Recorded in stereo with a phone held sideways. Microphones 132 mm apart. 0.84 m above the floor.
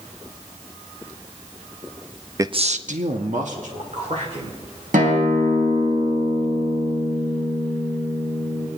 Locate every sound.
2.4 s a man speaking: 25° right (ahead or behind), 0.5 m; by 4.6 s 55° right (ahead or behind), 3 m
4.9 s a guitar: 80° right, 3.5 m